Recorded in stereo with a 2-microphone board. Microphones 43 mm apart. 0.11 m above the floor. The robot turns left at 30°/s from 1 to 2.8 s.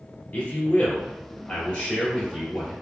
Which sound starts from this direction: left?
A man speaking, at 0.3 s.